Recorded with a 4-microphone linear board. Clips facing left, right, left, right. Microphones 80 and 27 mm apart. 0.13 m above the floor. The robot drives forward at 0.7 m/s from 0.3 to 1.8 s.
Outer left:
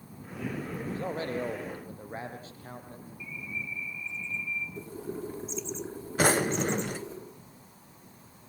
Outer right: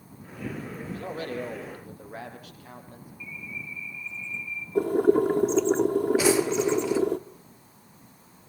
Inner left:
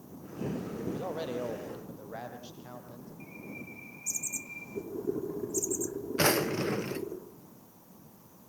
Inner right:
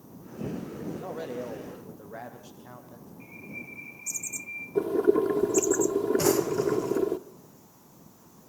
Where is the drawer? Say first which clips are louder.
Outer right 4 dB, inner right 3 dB; 50° left (ahead or behind), 0.9 m.